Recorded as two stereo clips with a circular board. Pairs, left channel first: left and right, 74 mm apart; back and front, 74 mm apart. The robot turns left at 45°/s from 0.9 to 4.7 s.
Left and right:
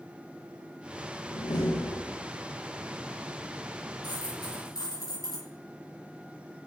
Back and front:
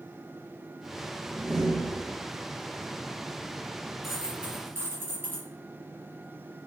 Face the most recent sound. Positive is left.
turn(degrees=65)